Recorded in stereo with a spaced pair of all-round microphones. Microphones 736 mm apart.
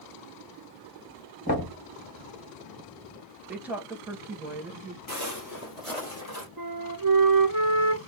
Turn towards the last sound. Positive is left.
turn(degrees=-30)  # may be behind; listen again after turning